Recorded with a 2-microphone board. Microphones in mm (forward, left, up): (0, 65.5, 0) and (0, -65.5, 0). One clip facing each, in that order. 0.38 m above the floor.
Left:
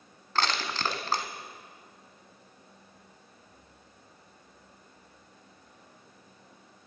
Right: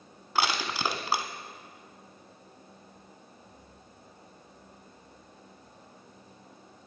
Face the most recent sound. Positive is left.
turn(degrees=-10)  # may be behind; listen again after turning